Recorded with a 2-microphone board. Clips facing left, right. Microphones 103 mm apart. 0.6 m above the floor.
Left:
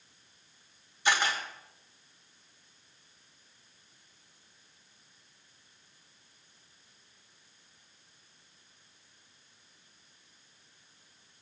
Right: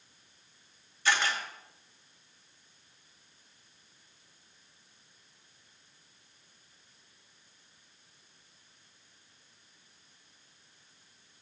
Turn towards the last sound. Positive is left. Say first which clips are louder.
# left 1 dB
turn(degrees=20)  # may be behind; listen again after turning